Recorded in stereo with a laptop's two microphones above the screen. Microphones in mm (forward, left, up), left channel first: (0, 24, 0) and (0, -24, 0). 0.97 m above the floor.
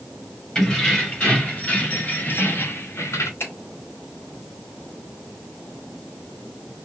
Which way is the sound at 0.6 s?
15° left (ahead or behind).